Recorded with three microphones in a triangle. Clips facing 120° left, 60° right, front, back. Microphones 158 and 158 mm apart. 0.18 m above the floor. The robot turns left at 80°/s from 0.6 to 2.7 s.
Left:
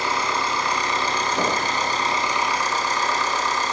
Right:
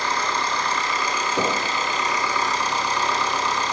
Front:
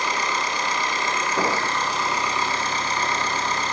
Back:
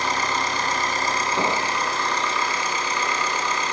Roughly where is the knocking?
Right.